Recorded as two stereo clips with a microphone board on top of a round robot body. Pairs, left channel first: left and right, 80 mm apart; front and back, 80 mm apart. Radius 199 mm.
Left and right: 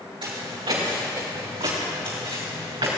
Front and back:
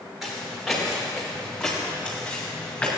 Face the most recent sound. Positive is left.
turn(degrees=-75)